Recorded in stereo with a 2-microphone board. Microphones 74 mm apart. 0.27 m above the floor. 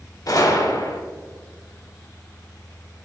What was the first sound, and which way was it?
A gunshot, 55° left (ahead or behind).